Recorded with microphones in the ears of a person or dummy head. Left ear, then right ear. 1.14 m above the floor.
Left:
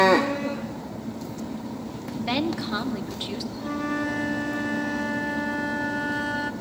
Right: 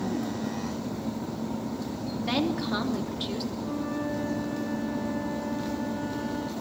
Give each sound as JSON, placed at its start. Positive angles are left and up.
{"t": 2.2, "sound": "a woman speaking", "side_deg": 10, "distance_m": 2.5}
{"t": 3.6, "sound": "a flute", "side_deg": 65, "distance_m": 1.2}